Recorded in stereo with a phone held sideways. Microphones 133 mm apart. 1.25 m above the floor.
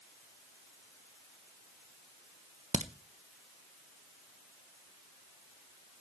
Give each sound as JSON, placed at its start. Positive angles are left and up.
{"t": 2.7, "sound": "a crack", "side_deg": -65, "distance_m": 1.1}